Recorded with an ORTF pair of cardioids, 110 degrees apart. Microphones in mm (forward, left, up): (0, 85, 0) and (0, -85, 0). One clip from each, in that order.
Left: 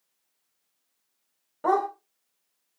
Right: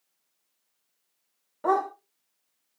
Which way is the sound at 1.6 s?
10° left.